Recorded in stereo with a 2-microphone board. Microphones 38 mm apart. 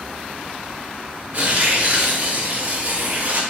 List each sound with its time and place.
1.3 s tearing paper: 45° right (ahead or behind), 0.6 m